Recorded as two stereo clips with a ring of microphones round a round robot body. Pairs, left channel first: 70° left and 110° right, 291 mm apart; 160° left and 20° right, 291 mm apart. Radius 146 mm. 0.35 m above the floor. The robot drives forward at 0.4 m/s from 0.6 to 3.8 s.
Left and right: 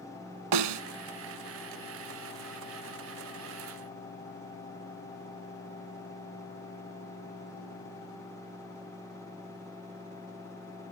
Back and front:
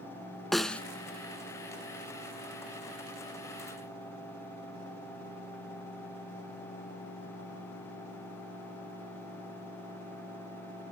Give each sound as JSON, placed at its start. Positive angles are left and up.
{"t": 0.5, "sound": "a snare drum", "azimuth_deg": -115, "distance_m": 1.0}